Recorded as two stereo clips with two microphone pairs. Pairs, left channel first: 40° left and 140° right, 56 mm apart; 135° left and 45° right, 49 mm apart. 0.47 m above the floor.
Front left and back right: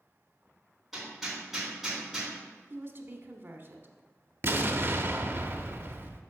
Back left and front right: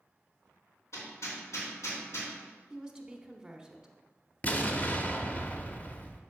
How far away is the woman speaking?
About 1.0 m.